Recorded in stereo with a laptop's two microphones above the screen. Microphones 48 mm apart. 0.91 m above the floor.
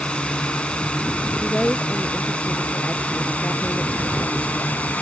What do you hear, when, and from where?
0.0 s a drone: 20° left (ahead or behind); by 5.0 s 30° left (ahead or behind)
1.4 s a woman speaking: 20° left (ahead or behind)